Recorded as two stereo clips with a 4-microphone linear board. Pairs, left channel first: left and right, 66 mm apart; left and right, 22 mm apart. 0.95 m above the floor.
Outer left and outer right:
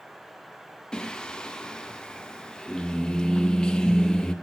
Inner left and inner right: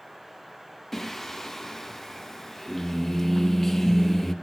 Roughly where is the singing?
Centre.